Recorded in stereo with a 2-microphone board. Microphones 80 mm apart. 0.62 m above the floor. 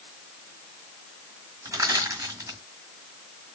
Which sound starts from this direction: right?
Crushing, at 1.6 s.